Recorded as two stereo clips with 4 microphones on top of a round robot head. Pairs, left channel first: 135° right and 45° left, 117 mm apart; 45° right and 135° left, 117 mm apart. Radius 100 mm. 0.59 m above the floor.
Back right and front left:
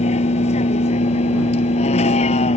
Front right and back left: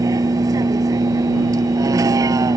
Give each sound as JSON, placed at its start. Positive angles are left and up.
{"t": 0.0, "sound": "a vehicle", "azimuth_deg": -165}